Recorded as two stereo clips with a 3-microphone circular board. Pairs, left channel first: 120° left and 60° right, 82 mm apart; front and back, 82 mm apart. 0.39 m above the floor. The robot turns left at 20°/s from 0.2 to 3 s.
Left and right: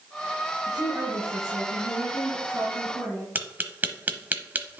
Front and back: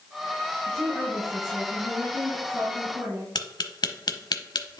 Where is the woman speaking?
75° right, 3.5 m; by 3.2 s 120° right, 3.5 m.